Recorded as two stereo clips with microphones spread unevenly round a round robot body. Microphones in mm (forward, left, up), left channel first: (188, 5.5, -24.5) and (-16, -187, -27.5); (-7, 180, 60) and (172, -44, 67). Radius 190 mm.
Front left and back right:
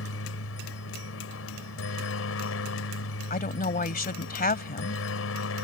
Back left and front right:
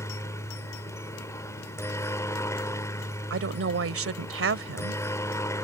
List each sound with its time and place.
0.0 s a helicopter: 50° left
3.3 s a woman speaking: 15° right